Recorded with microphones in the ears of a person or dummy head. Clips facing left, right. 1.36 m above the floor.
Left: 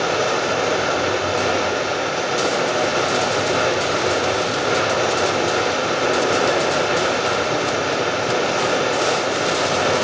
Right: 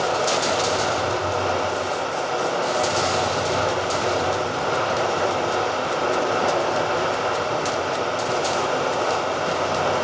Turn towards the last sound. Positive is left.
turn(degrees=20)  # may be behind; listen again after turning